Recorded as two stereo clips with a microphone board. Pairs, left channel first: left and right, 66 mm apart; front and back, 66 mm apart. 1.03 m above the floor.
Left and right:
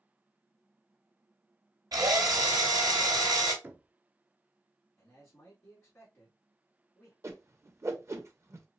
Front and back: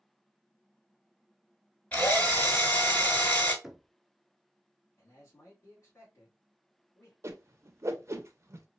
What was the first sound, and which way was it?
A drill, 70° right.